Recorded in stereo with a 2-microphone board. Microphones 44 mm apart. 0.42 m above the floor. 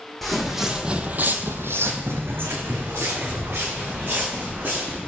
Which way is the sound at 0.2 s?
5° left (ahead or behind).